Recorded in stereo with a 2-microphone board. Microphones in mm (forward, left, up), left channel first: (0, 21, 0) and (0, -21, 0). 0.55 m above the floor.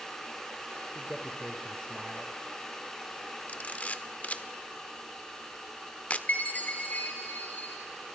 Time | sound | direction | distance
0.9 | a man speaking | 15° left (ahead or behind) | 1.8 m
3.5 | a camera shutter | 35° left (ahead or behind) | 1.1 m
6.3 | a chime | 40° left (ahead or behind) | 3.5 m